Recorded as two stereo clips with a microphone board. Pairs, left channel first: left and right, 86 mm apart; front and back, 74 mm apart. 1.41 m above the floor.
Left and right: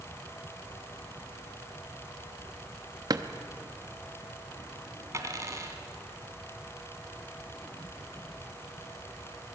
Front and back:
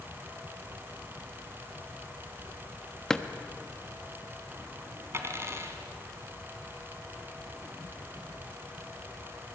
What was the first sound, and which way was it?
A drawer, 80° right.